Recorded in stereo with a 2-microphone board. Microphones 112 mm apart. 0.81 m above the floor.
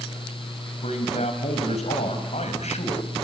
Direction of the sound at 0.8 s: 80° left.